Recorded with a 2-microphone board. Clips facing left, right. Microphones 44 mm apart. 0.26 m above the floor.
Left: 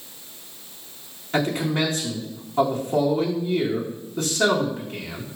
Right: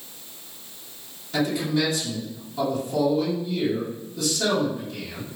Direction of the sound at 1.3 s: 45° left (ahead or behind).